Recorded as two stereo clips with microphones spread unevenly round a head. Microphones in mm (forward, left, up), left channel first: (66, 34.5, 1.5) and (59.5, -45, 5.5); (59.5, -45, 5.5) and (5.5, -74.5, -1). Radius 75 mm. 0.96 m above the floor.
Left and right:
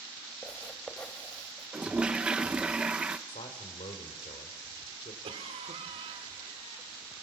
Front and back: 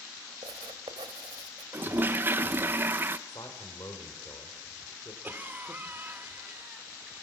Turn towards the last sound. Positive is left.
turn(degrees=-90)